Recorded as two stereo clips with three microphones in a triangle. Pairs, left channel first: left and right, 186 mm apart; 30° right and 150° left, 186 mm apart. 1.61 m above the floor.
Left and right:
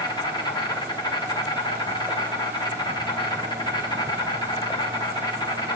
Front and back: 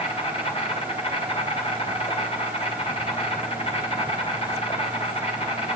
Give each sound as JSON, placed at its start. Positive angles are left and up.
{"t": 0.0, "sound": "an insect", "azimuth_deg": 25, "distance_m": 3.0}